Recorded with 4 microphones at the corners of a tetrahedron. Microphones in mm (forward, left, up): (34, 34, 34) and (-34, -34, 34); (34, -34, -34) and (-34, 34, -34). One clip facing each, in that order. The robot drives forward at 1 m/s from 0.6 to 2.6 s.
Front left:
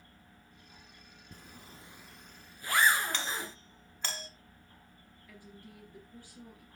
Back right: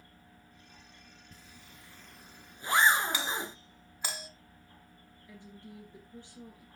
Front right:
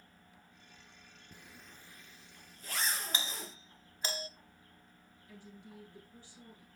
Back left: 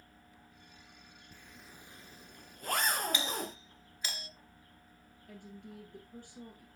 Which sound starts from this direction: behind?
A woman speaking, at 5.3 s.